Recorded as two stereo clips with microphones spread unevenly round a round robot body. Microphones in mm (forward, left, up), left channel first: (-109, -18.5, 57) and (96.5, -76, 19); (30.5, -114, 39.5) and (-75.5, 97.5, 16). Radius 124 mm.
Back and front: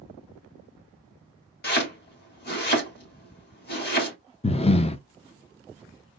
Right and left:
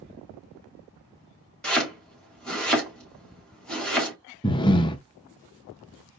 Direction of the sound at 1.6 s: 150° right.